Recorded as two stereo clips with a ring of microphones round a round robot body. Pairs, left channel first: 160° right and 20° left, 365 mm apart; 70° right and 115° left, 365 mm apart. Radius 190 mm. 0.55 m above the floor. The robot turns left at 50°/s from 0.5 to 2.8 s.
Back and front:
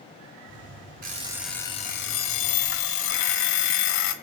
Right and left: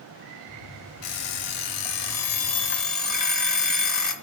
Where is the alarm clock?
45° right, 1.8 m; by 4.1 s 135° right, 1.8 m.